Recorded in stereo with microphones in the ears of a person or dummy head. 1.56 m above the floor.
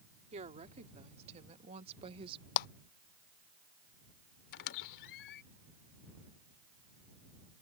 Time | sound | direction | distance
0.3 | a woman speaking | 40° right (ahead or behind) | ?
2.6 | a clap | 55° left (ahead or behind) | ?
4.5 | a squeak | 60° left (ahead or behind) | ?